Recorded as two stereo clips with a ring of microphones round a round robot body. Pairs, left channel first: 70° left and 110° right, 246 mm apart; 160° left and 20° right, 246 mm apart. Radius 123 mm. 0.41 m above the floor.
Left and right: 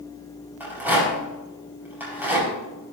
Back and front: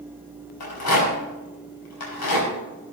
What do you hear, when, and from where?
0.6 s a rattle: 165° left, 4.5 m